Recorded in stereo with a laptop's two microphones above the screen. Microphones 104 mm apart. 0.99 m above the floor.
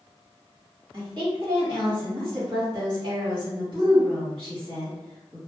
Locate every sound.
0.9 s a woman speaking: 50° right (ahead or behind), 1.5 m